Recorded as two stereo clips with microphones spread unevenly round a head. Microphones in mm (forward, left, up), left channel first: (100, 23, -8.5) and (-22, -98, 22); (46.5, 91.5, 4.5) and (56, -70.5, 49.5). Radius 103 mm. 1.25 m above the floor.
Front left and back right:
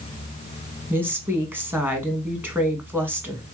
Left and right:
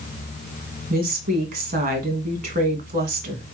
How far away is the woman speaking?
About 1.6 m.